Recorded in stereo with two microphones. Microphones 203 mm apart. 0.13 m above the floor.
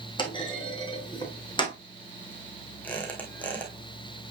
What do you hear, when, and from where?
0.2 s a clunk: 25° left (ahead or behind), 2.5 m
2.8 s a squeak: 5° left (ahead or behind), 2.5 m